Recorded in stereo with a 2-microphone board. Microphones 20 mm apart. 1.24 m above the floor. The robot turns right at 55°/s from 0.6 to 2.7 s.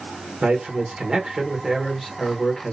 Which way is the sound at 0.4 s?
75° right.